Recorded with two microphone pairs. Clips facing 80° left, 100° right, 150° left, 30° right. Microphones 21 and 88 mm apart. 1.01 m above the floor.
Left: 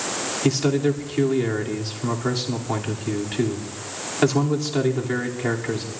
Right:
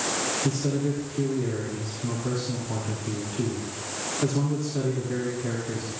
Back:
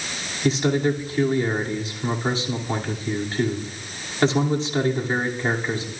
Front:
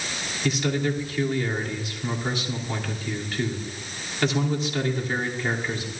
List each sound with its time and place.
0.4 s a man speaking: 90° left, 2.5 m